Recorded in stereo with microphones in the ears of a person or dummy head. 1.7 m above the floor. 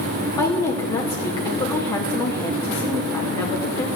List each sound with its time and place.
0.4 s a woman speaking: 20° left (ahead or behind), 2.5 m